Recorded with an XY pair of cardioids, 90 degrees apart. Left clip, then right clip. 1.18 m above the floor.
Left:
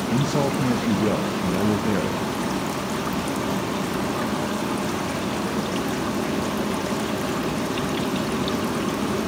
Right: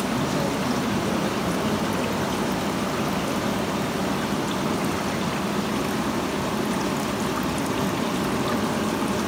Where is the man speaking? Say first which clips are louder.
Left 2 dB; 65° left, 0.9 m.